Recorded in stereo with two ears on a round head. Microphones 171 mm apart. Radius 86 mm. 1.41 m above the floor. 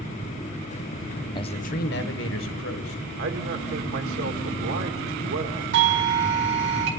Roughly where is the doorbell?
Right.